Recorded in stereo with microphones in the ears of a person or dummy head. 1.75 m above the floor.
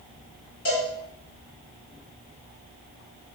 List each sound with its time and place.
0.7 s a cowbell: 45° left (ahead or behind), 1.7 m